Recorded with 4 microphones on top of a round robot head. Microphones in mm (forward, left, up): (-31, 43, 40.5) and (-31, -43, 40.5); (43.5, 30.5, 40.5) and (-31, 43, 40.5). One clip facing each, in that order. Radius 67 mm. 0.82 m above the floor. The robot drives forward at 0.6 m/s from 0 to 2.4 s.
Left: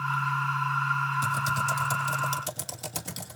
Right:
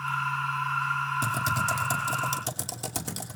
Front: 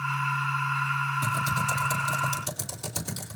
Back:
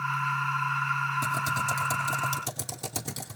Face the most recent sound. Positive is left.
turn(degrees=-140)